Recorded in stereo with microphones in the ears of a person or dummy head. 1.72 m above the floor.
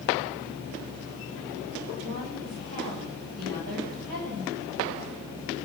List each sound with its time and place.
2.0 s a woman speaking: 80° right, 6.5 m